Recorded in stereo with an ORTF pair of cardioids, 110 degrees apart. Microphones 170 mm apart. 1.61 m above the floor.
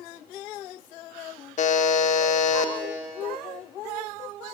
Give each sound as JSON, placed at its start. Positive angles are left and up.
{"t": 1.6, "sound": "a buzzer", "azimuth_deg": 45, "distance_m": 1.7}